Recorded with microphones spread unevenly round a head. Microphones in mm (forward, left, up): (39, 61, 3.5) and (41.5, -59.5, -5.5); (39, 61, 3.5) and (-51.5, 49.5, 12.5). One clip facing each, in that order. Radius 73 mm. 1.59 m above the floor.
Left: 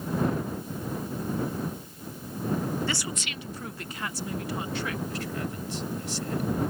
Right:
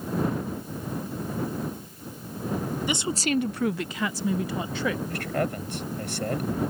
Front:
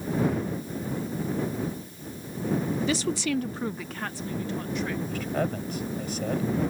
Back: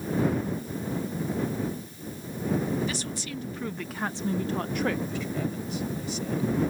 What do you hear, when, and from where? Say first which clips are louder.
2.9 s a woman speaking: right 7 dB, front 8 dB; 15° right; by 5.0 s 115° right
5.1 s a man speaking: right 5 dB, front 3 dB; 55° right